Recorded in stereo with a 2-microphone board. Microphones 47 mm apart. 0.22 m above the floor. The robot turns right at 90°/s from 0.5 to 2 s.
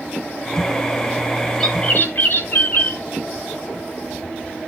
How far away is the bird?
About 3.5 m.